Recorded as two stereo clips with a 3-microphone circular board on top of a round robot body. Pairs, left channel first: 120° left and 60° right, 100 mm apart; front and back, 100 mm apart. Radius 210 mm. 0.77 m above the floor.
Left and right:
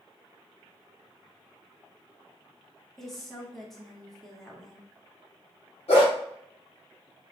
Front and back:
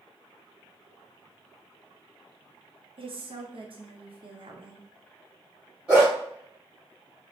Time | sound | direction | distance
3.0 | a woman speaking | 155° right | 0.9 m
5.9 | a dog barking | 100° left | 1.1 m